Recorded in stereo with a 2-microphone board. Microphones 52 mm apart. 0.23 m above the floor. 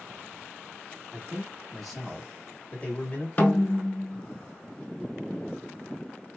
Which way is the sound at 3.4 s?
35° left (ahead or behind).